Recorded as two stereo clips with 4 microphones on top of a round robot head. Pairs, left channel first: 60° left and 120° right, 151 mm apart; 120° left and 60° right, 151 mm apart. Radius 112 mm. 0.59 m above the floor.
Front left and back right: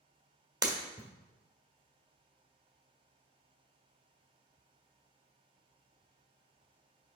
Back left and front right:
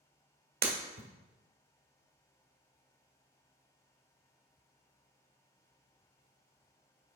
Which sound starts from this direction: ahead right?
Breaking glass, at 0.6 s.